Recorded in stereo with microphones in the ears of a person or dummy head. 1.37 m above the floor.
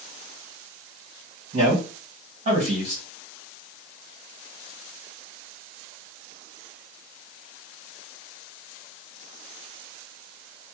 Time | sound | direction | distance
1.5 | a man speaking | 30° right (ahead or behind) | 1.6 m